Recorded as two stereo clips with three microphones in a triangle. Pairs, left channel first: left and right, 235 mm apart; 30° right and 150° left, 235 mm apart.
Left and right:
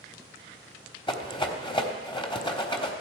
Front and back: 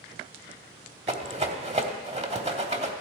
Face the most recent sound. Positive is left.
turn(degrees=130)